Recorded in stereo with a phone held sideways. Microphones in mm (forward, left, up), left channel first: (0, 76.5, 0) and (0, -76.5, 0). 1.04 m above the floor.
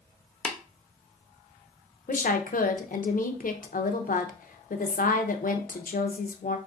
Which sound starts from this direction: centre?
Tapping, at 0.5 s.